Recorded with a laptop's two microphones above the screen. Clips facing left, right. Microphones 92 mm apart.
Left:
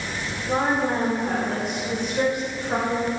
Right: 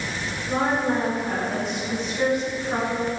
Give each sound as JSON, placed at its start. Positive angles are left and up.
{"t": 0.5, "sound": "a woman speaking", "side_deg": 40, "distance_m": 2.5}